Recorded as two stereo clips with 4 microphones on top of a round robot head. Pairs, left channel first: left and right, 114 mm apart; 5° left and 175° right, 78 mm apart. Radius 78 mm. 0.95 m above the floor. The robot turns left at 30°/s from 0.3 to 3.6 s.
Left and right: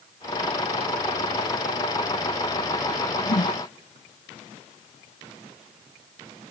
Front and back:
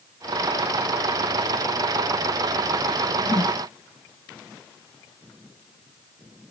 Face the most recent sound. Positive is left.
turn(degrees=55)